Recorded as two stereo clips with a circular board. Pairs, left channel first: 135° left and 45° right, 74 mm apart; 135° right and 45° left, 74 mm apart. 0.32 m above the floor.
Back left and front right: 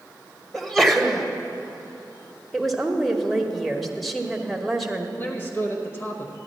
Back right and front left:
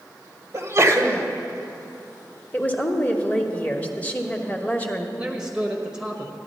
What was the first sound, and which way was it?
A sneeze, 50° left.